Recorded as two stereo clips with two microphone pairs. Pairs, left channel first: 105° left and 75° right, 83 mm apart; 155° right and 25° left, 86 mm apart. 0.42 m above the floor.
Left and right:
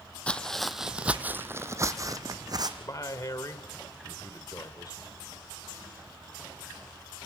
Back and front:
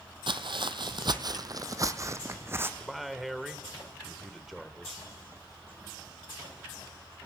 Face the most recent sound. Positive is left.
turn(degrees=115)